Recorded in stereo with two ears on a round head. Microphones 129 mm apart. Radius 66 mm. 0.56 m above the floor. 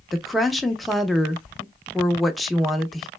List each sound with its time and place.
0.1 s a woman speaking: centre (ahead or behind), 0.6 m